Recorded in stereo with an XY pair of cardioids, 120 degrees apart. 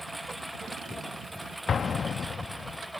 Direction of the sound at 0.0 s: 5° right.